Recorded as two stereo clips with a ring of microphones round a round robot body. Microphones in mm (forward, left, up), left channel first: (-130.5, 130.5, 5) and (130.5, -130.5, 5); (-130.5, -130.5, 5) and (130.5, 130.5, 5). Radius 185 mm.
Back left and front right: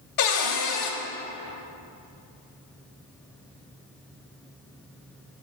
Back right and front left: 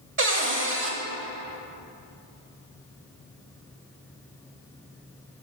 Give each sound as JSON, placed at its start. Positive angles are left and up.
{"t": 0.2, "sound": "a cupboard door", "azimuth_deg": 105, "distance_m": 1.1}